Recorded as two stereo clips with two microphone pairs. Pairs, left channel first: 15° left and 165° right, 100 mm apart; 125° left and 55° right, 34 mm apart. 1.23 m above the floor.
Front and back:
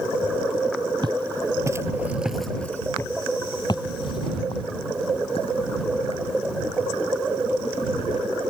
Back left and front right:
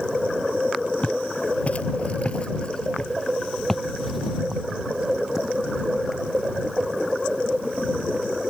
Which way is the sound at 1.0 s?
165° left.